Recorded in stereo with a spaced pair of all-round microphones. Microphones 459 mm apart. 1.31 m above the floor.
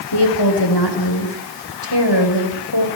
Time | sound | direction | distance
0.1 | a woman speaking | 60° left (ahead or behind) | 5.5 m